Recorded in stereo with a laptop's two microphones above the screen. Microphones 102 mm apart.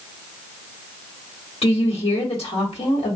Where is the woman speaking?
70° left (ahead or behind), 1.6 m.